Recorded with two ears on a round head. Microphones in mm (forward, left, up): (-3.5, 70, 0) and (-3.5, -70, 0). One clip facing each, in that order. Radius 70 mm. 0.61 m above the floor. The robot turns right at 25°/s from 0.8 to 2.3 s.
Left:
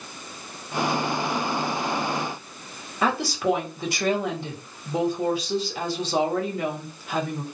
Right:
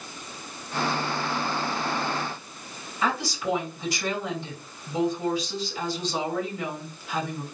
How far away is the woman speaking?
About 1.7 m.